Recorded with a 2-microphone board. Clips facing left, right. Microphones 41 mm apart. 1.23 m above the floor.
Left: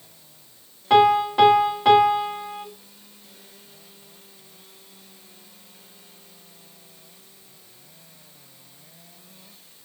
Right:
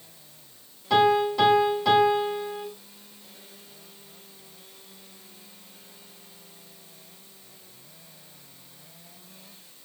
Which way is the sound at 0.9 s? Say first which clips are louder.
Left 4 dB; 45° left (ahead or behind).